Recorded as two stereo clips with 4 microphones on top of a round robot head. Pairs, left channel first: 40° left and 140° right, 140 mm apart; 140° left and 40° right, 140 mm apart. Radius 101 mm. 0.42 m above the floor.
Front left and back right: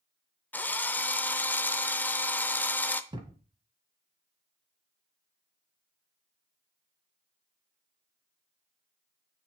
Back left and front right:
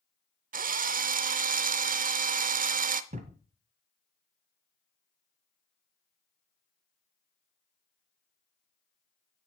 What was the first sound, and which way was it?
A drill, 40° right.